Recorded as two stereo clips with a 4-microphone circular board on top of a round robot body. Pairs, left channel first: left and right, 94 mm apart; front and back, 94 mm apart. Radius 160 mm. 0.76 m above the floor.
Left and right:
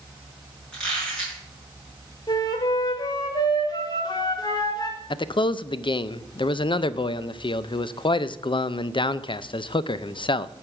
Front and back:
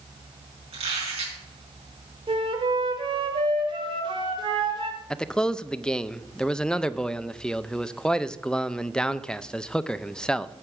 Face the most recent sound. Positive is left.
turn(degrees=80)